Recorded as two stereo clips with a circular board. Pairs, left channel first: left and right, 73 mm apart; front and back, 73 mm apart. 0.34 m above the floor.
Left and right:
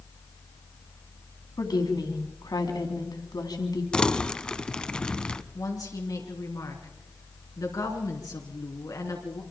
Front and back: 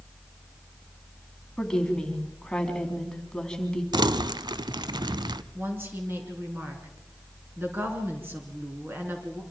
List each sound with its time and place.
1.6 s a woman speaking: 80° left, 2.5 m
3.9 s crumpling: 170° left, 0.6 m
5.5 s a woman speaking: 120° left, 4 m